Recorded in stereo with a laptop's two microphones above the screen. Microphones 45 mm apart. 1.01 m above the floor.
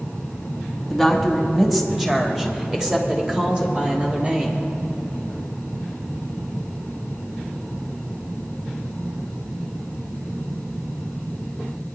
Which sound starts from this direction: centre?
A woman speaking, at 0.9 s.